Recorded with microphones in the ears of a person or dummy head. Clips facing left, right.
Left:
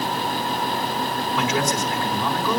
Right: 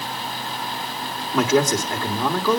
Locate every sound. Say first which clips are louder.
1.3 s a man speaking: right 7 dB; 35° right (ahead or behind), 3 m